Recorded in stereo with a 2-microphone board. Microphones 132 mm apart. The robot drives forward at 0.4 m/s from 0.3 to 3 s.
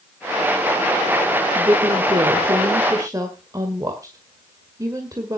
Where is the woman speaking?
35° right (ahead or behind), 1.4 m; by 5.4 s 25° right (ahead or behind), 1.8 m.